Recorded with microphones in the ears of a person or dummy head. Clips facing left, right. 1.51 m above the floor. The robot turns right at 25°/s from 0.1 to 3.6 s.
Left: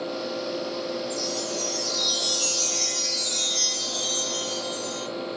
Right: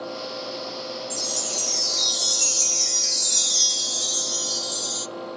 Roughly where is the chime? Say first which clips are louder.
Left 4 dB; behind right.